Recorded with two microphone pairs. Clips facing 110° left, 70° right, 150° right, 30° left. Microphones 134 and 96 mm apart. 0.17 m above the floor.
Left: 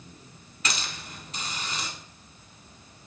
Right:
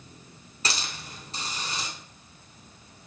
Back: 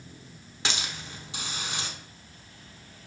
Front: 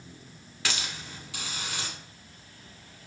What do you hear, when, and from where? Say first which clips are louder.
0.7 s a hiss: even, back 1 dB; 95° right, 0.6 m